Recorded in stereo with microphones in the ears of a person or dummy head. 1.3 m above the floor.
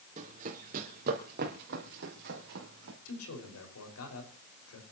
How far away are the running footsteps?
About 3.5 m.